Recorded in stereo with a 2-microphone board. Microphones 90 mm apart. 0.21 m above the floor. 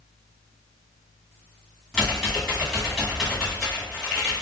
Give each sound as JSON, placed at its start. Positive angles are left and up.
{"t": 1.9, "sound": "typing on a keyboard", "side_deg": 5, "distance_m": 1.6}